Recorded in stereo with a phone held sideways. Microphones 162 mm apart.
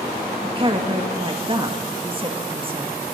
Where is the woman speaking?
35° right (ahead or behind), 1.6 m.